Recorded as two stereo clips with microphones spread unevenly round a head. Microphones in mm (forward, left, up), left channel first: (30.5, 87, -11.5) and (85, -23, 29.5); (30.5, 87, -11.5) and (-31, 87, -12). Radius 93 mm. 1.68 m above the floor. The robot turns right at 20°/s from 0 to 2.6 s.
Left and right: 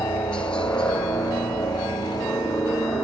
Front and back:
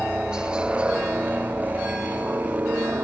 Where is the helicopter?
115° left; by 3.0 s 165° left.